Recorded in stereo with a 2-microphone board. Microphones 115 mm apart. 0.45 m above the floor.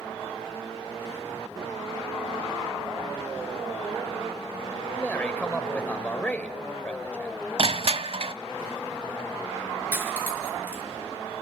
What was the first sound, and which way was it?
A man speaking, 10° left (ahead or behind).